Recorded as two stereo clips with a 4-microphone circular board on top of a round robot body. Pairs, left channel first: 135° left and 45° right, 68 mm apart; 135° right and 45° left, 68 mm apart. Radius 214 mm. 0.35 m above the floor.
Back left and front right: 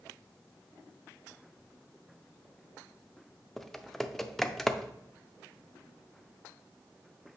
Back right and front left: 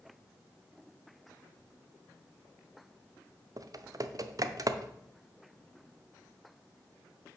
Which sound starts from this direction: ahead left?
Typing on a keyboard, at 3.6 s.